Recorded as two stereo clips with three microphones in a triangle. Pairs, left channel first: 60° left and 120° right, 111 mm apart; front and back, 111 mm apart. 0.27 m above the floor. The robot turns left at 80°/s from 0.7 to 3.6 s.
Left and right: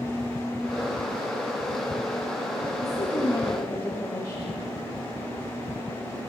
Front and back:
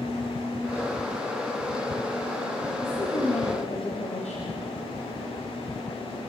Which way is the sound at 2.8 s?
45° left.